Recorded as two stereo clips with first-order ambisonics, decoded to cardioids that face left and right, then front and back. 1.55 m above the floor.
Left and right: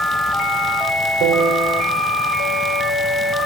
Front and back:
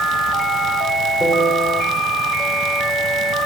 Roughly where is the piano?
Right.